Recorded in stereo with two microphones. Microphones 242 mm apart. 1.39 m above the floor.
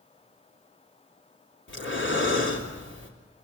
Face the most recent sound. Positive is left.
turn(degrees=55)  # may be behind; listen again after turning